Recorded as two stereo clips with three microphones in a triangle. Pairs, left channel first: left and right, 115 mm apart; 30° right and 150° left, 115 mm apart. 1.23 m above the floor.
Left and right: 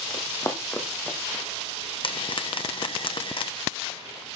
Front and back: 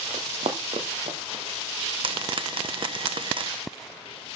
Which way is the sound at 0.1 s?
140° left.